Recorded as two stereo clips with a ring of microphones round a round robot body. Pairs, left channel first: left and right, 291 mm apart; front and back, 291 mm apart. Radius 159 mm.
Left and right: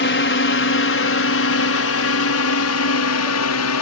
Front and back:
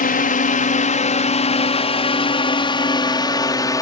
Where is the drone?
55° left; by 3.8 s 75° left.